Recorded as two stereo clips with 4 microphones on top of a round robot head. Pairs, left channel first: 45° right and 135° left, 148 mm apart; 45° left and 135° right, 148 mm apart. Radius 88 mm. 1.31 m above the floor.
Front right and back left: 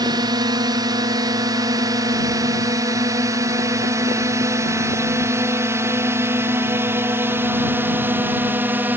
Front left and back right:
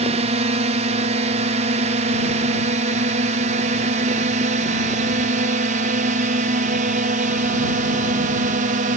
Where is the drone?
170° right; by 9.0 s 150° right.